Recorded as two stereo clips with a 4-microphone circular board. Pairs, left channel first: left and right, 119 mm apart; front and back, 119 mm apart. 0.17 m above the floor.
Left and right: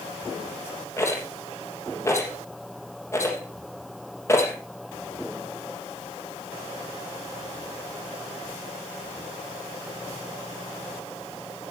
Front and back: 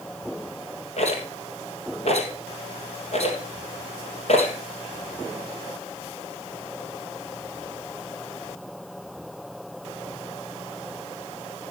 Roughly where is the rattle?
Ahead left.